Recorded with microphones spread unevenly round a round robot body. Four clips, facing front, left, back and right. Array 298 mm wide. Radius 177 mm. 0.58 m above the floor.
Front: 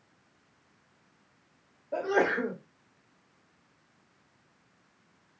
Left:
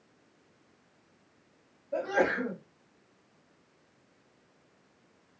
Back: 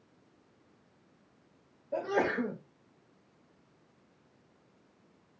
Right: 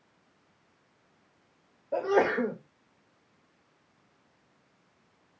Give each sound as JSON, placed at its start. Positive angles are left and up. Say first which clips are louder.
{"t": 1.9, "sound": "a sneeze", "louder": "right 3 dB, front 3 dB", "azimuth_deg": -55, "distance_m": 1.6}